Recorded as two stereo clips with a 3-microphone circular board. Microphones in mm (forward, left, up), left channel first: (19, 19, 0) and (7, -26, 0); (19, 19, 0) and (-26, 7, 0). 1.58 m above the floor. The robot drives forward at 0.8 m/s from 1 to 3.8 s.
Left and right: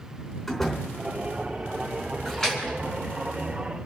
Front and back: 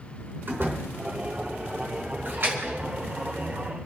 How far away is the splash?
About 5 m.